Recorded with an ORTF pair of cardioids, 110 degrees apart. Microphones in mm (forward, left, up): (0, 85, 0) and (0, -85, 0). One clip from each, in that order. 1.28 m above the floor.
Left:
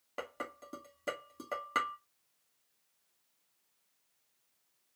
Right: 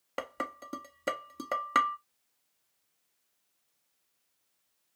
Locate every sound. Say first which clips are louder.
0.2 s dishes clattering: right 5 dB; 40° right, 1.7 m